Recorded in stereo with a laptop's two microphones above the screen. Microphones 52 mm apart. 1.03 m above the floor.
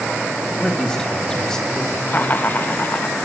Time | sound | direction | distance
0.6 | a man speaking | 15° left (ahead or behind) | 1.5 m
2.1 | laughter | 40° left (ahead or behind) | 1.2 m